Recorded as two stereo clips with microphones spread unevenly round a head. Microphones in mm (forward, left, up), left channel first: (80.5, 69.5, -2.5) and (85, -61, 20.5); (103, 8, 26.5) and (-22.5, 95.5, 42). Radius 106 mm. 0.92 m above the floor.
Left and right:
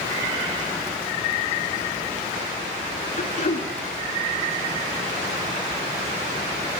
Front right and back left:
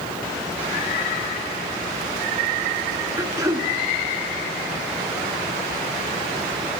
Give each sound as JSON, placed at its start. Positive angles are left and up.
{"t": 3.2, "sound": "throat clearing", "azimuth_deg": 75, "distance_m": 1.9}